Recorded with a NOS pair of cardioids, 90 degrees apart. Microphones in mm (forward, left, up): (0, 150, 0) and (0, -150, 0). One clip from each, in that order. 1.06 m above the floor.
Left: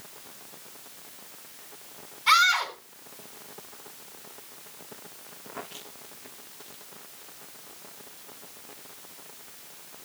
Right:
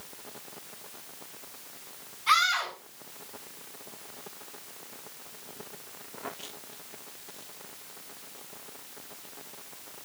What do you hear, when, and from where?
2.3 s a scream: 40° left, 8 m